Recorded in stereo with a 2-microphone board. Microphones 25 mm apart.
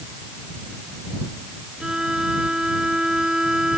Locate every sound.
1.8 s a violin: 25° right (ahead or behind)